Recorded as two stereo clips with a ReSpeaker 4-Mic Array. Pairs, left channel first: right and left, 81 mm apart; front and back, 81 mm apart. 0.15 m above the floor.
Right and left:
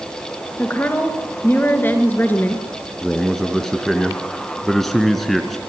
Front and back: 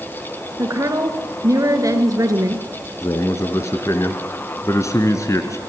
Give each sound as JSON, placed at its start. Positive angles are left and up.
{"t": 0.6, "sound": "a woman speaking", "azimuth_deg": -150, "distance_m": 2.5}
{"t": 3.0, "sound": "a man speaking", "azimuth_deg": -5, "distance_m": 1.6}